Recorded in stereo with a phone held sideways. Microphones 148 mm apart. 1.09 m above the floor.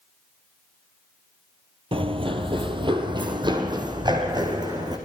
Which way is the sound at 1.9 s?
40° right (ahead or behind).